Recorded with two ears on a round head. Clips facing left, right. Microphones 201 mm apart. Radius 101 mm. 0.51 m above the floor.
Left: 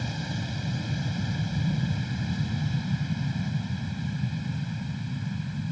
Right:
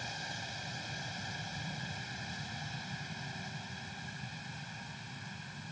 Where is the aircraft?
55° left (ahead or behind).